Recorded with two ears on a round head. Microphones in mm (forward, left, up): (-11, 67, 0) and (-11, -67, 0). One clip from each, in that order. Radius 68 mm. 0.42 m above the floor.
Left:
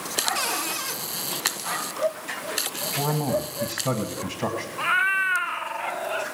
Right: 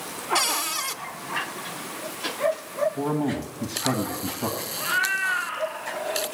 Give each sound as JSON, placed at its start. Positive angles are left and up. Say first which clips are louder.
{"t": 0.3, "sound": "a cupboard door", "louder": "right 2 dB", "side_deg": -40, "distance_m": 1.1}
{"t": 3.0, "sound": "a man speaking", "louder": "left 2 dB", "side_deg": 60, "distance_m": 1.6}
{"t": 4.8, "sound": "a cat meowing", "louder": "left 3 dB", "side_deg": 50, "distance_m": 0.7}